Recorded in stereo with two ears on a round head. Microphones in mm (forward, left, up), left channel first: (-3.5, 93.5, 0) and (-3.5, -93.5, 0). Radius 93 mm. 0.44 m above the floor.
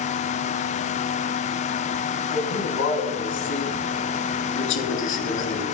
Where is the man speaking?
60° left (ahead or behind), 3 m.